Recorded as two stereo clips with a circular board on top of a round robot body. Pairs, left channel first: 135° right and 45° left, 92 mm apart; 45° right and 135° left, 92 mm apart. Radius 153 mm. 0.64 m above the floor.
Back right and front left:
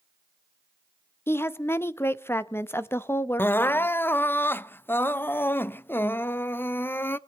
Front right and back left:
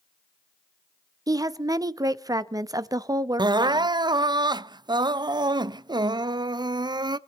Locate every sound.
1.3 s a woman speaking: 170° left, 0.9 m
3.4 s crying: 160° left, 0.6 m